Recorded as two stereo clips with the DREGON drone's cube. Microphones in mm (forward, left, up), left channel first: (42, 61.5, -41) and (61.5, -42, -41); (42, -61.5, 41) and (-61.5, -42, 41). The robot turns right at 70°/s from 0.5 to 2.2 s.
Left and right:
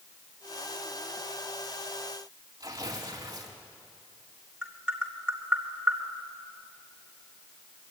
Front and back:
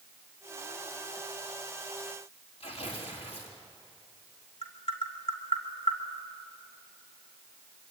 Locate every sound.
2.6 s tearing paper: 25° right, 4 m
4.6 s tapping: straight ahead, 3 m